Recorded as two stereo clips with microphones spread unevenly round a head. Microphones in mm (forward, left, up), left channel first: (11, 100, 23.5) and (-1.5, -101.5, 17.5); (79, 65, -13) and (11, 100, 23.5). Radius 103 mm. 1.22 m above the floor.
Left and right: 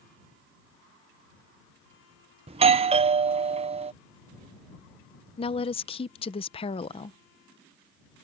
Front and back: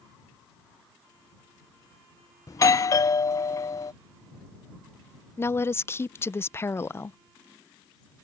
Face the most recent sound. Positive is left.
turn(degrees=20)